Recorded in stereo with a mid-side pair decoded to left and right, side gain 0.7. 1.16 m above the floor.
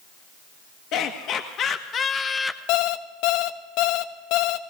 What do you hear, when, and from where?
0.9 s laughter: 55° left, 1.3 m; by 2.6 s 10° left, 0.8 m
2.7 s an alarm clock: 65° left, 0.8 m